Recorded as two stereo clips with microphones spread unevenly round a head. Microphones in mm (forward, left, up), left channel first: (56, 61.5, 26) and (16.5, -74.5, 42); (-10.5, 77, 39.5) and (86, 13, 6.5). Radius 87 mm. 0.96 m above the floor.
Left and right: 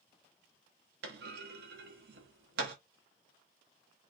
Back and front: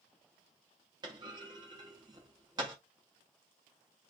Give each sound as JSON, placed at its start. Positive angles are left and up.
{"t": 1.0, "sound": "a clunk", "azimuth_deg": -105, "distance_m": 0.8}